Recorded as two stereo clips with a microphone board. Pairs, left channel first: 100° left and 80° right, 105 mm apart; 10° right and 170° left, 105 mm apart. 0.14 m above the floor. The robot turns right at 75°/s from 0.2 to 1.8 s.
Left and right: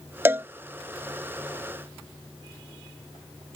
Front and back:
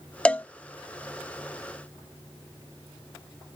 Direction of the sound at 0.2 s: 75° right.